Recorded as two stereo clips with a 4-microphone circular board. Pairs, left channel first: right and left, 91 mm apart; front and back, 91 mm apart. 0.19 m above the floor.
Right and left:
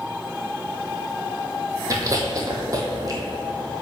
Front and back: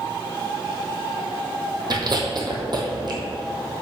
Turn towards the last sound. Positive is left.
turn(degrees=140)